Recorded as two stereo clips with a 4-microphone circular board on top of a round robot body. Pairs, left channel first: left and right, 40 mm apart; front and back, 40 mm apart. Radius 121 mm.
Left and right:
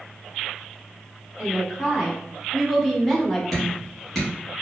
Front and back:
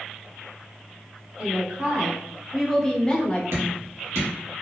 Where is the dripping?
175° left, 1.1 m.